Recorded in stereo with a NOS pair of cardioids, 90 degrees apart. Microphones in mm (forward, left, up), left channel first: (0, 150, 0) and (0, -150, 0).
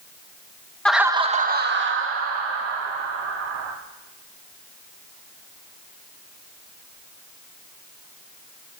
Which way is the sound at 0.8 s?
5° left.